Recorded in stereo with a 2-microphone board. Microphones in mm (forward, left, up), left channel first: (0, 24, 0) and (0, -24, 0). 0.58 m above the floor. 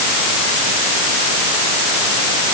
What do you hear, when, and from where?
Only background noise.